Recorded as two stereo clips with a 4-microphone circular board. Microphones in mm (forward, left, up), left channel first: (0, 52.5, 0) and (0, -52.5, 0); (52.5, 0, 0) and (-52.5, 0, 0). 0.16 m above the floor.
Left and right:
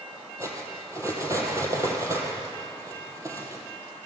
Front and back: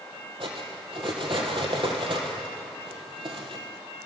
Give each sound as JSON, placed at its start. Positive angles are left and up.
{"t": 0.4, "sound": "cutlery clinking", "azimuth_deg": -150, "distance_m": 3.0}